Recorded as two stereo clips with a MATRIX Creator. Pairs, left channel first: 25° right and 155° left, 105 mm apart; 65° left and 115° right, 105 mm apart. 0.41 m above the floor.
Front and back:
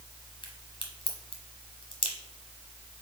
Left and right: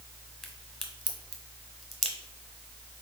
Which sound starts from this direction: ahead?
A crack, at 0.4 s.